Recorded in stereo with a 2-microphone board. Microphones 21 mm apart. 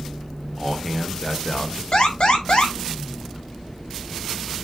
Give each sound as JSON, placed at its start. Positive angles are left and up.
{"t": 0.6, "sound": "a man speaking", "side_deg": 15, "distance_m": 1.4}
{"t": 1.9, "sound": "an alarm", "side_deg": 55, "distance_m": 4.0}